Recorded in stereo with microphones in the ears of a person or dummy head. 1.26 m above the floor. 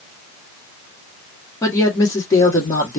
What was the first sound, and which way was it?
A woman speaking, 15° left (ahead or behind).